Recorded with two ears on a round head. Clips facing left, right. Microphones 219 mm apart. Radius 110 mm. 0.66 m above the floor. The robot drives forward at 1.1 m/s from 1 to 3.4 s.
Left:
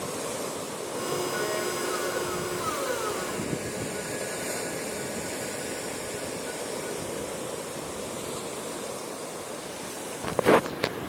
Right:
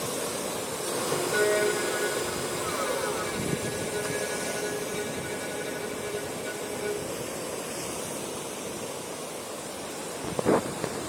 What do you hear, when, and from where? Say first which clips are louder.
1.3 s a violin: right 6 dB; 75° right (ahead or behind); by 7.1 s 60° right (ahead or behind)